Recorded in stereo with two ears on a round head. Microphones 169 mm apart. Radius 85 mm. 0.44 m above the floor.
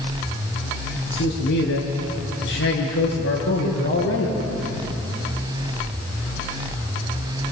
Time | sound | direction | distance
1.1 | a man speaking | 60° left (ahead or behind) | 7.5 m